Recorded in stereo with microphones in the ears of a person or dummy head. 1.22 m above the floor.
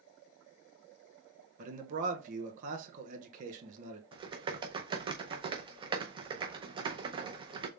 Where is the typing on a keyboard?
30° right (ahead or behind), 0.6 m.